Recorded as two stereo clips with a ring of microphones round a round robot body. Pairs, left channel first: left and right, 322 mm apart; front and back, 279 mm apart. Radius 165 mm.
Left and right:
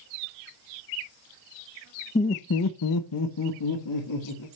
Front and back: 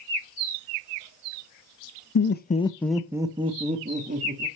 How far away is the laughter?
About 0.8 m.